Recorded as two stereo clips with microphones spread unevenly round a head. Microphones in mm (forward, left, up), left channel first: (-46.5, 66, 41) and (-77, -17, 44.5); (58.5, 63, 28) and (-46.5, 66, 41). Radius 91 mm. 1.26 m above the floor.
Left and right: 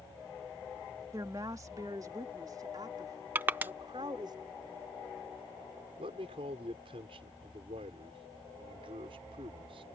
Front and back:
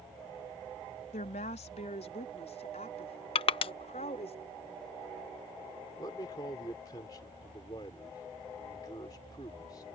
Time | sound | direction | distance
1.1 | a woman speaking | 40° right | ?
3.4 | crushing | 35° right | ?
6.0 | a man speaking | 70° right | ?